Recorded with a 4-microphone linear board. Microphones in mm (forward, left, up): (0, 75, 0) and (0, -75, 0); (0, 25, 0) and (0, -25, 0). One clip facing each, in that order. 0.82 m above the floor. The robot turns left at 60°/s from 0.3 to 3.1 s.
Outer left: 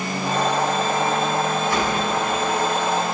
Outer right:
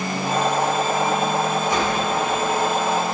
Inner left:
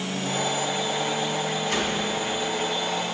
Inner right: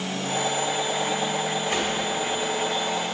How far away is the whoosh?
About 2.5 m.